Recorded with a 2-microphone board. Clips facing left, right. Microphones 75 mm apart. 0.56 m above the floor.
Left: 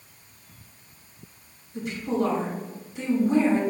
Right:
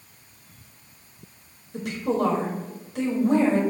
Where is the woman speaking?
70° right (ahead or behind), 2.5 m.